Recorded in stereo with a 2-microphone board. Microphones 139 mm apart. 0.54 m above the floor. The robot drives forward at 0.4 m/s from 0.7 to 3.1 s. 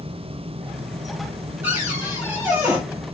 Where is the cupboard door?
20° right (ahead or behind), 4 m.